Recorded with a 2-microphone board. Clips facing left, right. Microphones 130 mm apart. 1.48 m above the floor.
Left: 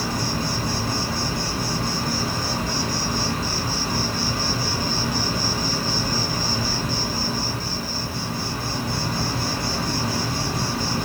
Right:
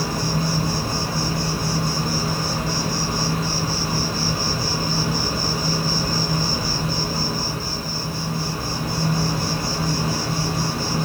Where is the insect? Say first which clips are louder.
Right 2 dB; 5° right (ahead or behind), 3 m.